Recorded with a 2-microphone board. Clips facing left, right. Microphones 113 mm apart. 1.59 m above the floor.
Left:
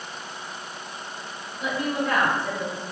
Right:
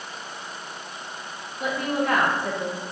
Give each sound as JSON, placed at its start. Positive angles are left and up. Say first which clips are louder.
{"t": 1.6, "sound": "a woman speaking", "louder": "right 1 dB", "side_deg": -60, "distance_m": 2.0}